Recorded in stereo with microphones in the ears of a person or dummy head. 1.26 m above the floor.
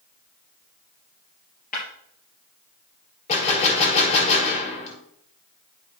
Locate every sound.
1.7 s breaking glass: 45° left (ahead or behind), 4 m
3.3 s a gunshot: 35° left (ahead or behind), 2 m